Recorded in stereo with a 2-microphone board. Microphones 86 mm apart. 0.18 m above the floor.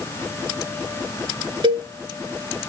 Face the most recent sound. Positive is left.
turn(degrees=-70)  # may be behind; listen again after turning